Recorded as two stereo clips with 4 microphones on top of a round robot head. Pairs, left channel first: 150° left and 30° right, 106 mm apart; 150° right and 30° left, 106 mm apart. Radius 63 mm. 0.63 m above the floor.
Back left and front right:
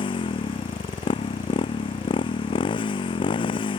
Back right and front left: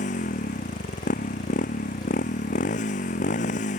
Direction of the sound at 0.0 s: 165° right.